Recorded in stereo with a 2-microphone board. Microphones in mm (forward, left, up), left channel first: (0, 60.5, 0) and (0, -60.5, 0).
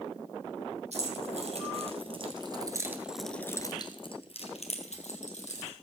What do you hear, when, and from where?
0.9 s keys jangling: 65° right (ahead or behind), 3 m; by 5.7 s 75° left (ahead or behind), 3 m